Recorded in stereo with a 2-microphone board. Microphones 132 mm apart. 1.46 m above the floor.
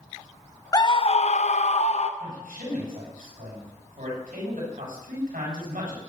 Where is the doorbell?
No doorbell in this recording.